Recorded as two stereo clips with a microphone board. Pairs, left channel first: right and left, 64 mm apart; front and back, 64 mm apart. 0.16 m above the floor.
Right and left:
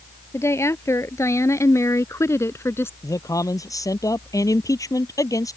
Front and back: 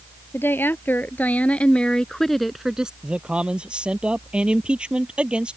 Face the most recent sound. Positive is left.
turn(degrees=-105)